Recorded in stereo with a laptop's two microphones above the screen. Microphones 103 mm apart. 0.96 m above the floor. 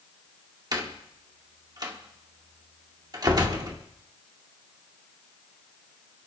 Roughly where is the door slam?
Right.